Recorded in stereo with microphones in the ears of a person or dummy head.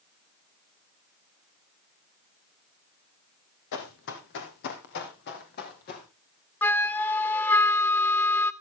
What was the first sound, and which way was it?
Running footsteps, 60° left (ahead or behind).